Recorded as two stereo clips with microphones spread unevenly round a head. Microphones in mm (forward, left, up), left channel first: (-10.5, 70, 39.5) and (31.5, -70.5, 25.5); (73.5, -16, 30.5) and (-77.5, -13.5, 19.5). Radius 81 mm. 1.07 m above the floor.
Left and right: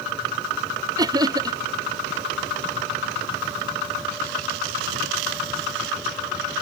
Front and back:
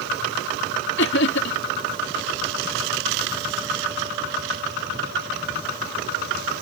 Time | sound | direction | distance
1.0 | laughter | 10° right | ?